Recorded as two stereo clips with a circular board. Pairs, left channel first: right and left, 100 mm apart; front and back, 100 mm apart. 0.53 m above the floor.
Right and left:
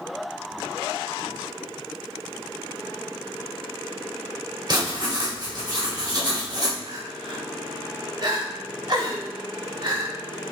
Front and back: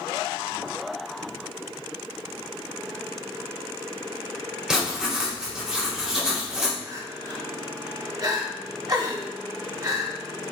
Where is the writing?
100° left, 1.3 m.